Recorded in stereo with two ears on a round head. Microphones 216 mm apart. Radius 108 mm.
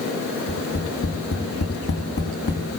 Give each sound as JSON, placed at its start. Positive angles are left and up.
{"t": 0.5, "sound": "tapping", "side_deg": 65, "distance_m": 5.5}